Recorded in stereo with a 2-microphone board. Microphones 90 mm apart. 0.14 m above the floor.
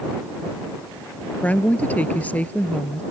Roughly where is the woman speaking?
Centre.